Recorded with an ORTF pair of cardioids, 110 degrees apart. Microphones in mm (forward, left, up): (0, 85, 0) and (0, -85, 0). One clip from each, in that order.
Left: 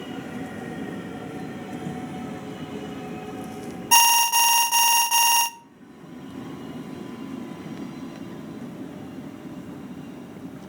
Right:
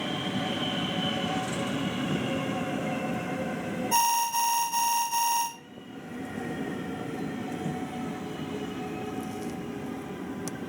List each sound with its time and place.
3.9 s an alarm: 60° left, 0.7 m